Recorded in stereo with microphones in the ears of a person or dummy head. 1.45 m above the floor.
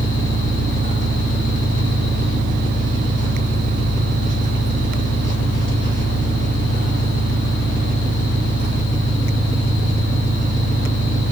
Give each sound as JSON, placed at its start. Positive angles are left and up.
{"t": 0.0, "sound": "an engine running", "side_deg": -45, "distance_m": 1.1}